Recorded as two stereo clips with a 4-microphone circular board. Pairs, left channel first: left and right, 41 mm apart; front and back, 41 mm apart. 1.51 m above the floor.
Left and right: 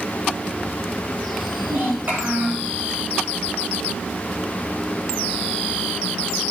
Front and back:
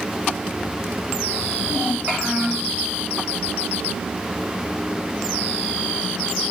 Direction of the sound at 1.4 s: 110° right.